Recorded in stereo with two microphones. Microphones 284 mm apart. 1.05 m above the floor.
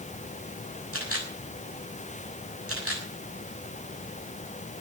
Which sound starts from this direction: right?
A camera shutter, at 0.9 s.